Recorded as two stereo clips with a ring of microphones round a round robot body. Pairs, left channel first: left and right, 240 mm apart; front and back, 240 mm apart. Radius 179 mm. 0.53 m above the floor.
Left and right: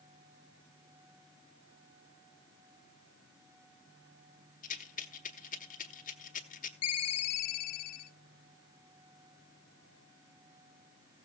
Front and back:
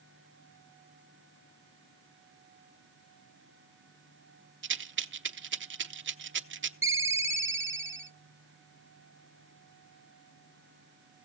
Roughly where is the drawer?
I don't hear a drawer.